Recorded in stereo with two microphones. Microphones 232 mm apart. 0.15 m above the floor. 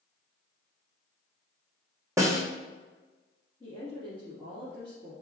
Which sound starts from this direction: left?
A woman speaking, at 3.6 s.